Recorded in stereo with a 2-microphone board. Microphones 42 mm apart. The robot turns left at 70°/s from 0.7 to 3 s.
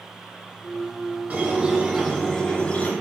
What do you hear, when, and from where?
1.3 s a squeak: 120° right, 1.0 m; by 2.9 s 125° left, 1.0 m